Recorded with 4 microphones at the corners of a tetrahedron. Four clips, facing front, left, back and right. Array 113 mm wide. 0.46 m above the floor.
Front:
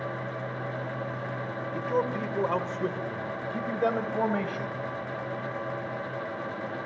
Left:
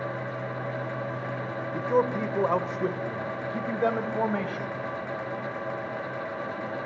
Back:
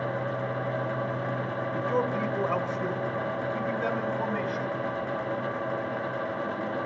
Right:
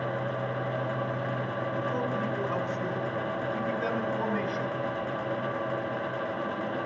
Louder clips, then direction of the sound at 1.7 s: Left 8 dB, even; 100° left.